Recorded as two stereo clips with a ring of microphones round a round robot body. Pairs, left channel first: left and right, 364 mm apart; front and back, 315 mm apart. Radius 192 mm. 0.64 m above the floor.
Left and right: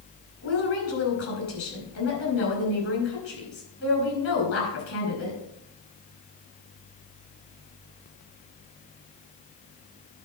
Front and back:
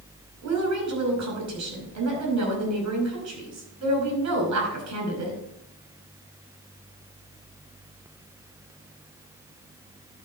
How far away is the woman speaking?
About 5 m.